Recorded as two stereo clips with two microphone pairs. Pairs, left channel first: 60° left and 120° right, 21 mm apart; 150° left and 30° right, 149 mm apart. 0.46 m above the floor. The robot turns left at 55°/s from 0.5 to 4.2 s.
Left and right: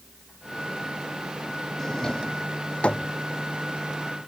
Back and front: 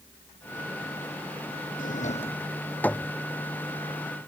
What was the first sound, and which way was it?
A drawer, 130° left.